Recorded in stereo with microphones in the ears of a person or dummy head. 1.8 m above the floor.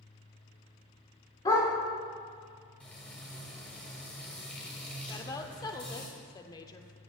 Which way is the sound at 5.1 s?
20° left (ahead or behind).